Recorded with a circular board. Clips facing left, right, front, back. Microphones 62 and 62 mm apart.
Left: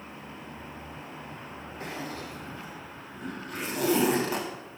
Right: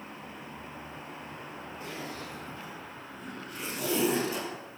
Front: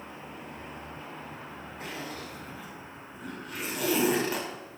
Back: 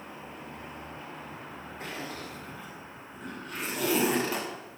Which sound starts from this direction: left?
A zipper, at 1.8 s.